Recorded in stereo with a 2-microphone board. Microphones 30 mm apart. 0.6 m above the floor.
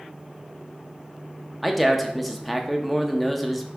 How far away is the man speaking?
About 0.5 m.